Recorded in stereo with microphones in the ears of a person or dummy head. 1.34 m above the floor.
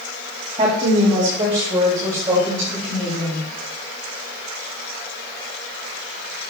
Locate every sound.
0.6 s a woman speaking: 25° right (ahead or behind), 2 m; by 3.5 s 15° right (ahead or behind), 6.5 m